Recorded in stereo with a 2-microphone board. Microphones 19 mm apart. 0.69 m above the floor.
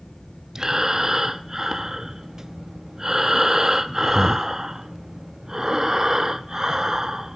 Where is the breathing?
25° right (ahead or behind), 0.5 m.